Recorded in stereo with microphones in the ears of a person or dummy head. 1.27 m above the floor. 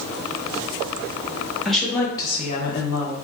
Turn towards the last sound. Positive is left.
turn(degrees=85)